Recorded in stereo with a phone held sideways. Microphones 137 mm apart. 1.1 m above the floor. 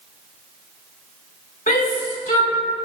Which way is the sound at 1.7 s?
85° left.